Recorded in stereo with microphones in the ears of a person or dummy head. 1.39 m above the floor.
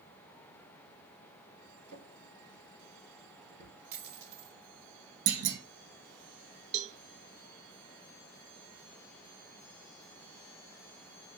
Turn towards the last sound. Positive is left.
turn(degrees=-40)  # may be behind; listen again after turning